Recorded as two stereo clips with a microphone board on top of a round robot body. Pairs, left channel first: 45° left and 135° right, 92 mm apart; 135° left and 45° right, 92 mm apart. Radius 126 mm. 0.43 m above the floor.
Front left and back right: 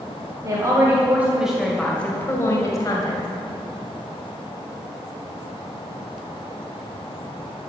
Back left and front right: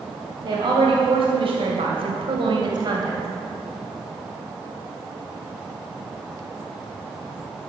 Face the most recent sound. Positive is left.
turn(degrees=5)